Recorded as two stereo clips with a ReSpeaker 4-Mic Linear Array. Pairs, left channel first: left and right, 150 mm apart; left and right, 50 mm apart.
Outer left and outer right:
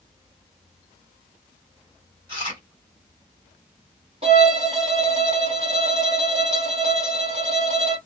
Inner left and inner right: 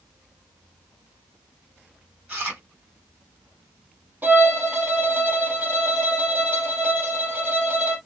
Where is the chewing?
35° right (ahead or behind), 3.5 m.